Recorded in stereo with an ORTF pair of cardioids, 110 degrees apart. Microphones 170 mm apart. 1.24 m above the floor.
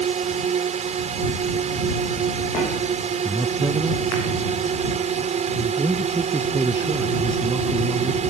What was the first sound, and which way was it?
A drone, 45° right.